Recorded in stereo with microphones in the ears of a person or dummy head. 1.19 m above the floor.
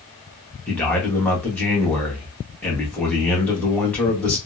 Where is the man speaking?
5° left (ahead or behind), 1.0 m.